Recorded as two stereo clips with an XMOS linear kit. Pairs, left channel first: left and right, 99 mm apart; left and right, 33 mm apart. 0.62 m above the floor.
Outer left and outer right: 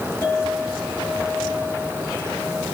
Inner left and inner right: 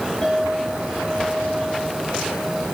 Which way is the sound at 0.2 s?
25° left (ahead or behind).